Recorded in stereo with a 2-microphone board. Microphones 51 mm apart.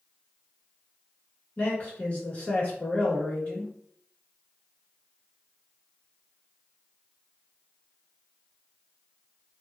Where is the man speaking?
30° left (ahead or behind), 1.4 m.